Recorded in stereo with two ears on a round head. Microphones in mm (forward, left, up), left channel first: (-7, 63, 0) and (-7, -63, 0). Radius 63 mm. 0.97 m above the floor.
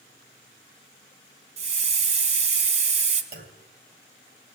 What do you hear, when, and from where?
1.6 s a hiss: 50° right (ahead or behind), 1.8 m
3.3 s a clunk: 70° right (ahead or behind), 2.5 m